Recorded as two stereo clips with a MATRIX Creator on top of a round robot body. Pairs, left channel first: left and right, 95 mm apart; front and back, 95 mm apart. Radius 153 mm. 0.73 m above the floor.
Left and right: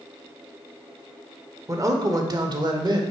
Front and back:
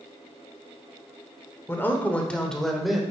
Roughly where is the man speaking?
Ahead right.